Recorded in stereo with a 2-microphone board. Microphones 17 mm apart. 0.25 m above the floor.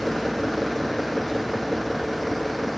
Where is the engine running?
20° left (ahead or behind).